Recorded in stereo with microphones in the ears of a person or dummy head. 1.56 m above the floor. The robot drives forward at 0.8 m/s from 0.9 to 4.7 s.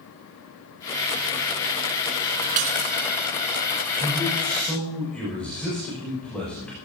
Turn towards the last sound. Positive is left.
turn(degrees=5)  # may be behind; listen again after turning